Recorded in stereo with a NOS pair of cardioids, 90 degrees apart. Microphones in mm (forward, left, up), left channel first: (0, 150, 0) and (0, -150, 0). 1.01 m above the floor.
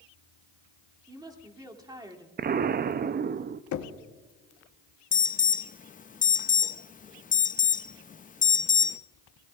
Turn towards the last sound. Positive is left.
turn(degrees=25)